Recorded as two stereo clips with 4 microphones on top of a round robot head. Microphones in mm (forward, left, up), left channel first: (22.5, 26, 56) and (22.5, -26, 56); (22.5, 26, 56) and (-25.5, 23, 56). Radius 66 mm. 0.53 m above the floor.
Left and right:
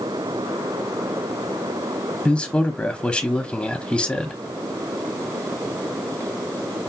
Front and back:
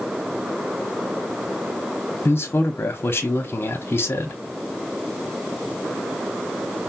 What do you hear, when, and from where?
2.2 s a man speaking: 30° left, 0.9 m